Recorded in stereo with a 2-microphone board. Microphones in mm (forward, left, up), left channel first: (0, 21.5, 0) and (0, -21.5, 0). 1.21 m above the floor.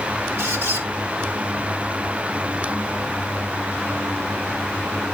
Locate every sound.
0.4 s a squeak: 65° right (ahead or behind), 2.5 m